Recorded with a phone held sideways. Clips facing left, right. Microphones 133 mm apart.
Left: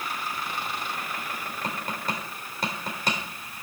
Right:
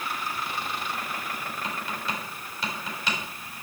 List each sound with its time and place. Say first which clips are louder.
1.6 s tapping: left 3 dB; 45° left (ahead or behind), 4 m